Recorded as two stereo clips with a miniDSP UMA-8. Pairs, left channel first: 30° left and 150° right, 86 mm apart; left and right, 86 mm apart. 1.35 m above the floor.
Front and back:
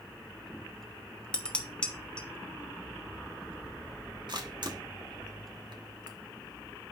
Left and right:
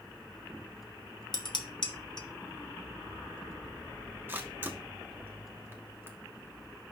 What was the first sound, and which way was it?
Dishes clattering, 105° left.